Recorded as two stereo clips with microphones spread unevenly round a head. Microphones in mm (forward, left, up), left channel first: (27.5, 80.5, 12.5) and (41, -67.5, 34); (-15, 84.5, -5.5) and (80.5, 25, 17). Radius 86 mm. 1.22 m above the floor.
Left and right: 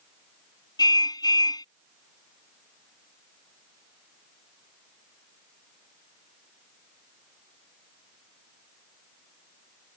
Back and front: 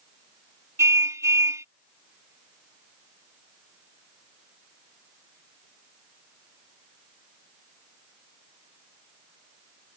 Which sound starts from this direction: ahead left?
A car horn, at 0.8 s.